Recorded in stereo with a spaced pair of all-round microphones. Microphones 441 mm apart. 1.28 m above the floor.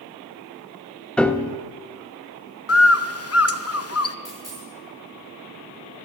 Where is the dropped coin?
50° left (ahead or behind), 6 m.